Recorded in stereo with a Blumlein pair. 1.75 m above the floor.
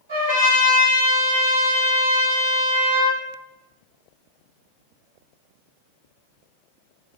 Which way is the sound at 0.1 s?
65° right.